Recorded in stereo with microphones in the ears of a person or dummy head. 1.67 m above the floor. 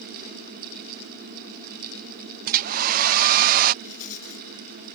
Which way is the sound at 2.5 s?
50° right (ahead or behind).